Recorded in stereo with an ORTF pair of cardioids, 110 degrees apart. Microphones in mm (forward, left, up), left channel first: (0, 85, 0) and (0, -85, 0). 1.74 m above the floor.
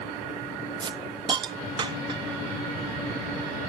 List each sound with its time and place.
0.8 s a hiss: 25° right, 0.5 m